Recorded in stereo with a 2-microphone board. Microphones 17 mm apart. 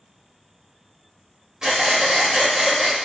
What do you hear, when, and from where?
1.6 s breathing: 40° right (ahead or behind), 0.8 m